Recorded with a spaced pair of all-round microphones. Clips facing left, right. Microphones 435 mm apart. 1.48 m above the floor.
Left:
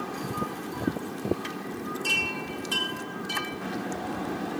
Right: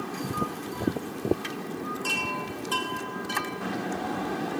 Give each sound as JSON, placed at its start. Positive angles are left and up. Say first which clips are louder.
{"t": 2.0, "sound": "a chime", "louder": "even", "side_deg": 40, "distance_m": 3.0}